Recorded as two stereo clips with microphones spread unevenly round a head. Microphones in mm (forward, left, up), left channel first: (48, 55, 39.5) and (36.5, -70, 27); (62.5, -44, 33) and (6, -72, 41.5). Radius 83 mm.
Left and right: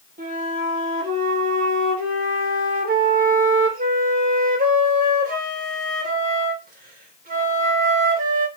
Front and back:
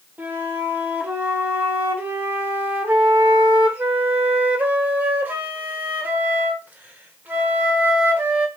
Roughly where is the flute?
Right.